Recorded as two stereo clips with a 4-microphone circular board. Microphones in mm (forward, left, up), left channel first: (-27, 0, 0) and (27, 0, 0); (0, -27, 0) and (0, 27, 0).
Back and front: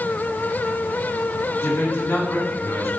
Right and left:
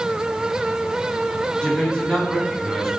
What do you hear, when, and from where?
1.6 s a man speaking: 155° right, 2.5 m; by 2.9 s 170° right, 3 m